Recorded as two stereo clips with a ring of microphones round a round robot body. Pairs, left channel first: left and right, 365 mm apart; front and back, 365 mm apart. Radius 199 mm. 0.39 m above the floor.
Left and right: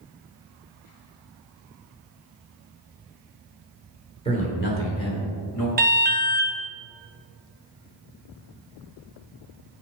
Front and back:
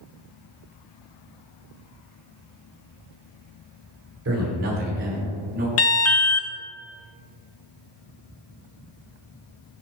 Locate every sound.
4.2 s a man speaking: 155° left, 1.5 m; by 5.7 s 120° left, 2.5 m
5.8 s an alarm: 35° right, 0.7 m